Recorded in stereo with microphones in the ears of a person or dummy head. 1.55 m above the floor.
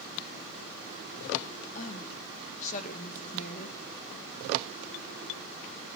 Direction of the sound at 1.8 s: 40° left (ahead or behind).